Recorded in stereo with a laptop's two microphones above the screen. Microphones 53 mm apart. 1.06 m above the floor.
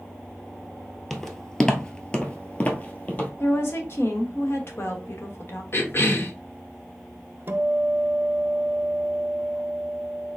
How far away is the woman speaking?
About 1.1 m.